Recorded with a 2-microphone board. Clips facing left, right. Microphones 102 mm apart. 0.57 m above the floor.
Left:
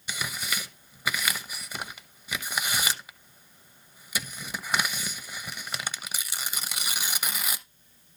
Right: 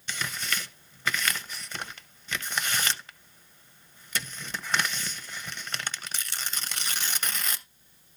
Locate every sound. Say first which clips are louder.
0.1 s tearing paper: even; 10° left (ahead or behind), 0.6 m